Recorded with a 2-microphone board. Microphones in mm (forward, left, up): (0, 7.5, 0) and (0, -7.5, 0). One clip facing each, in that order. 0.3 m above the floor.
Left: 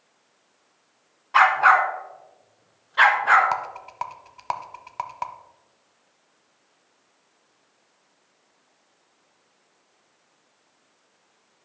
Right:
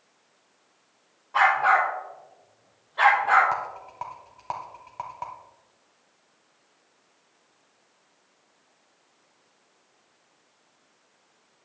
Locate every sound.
1.3 s a dog barking: 65° left (ahead or behind), 1.2 m; by 3.5 s 55° left (ahead or behind), 1.7 m
3.5 s a rattle: 45° left (ahead or behind), 0.6 m